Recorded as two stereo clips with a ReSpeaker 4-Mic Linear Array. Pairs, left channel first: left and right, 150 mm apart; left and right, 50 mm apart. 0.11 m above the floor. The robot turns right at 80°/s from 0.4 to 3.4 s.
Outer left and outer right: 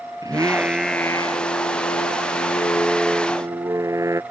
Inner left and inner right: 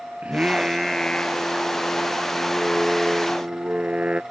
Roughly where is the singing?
Ahead right.